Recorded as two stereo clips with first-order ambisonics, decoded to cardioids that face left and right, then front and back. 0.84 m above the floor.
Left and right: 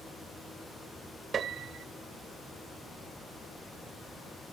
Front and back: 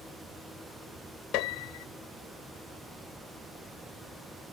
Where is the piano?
25° right.